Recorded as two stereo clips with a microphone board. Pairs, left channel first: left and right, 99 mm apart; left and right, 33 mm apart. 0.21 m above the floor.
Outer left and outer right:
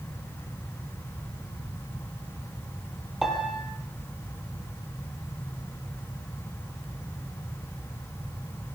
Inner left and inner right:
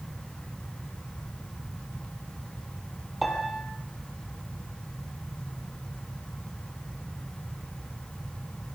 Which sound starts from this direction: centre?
A piano, at 3.2 s.